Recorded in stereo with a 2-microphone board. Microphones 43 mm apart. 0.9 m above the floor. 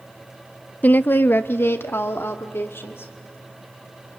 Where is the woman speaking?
40° left (ahead or behind), 0.5 m; by 3.1 s 70° left (ahead or behind), 3 m.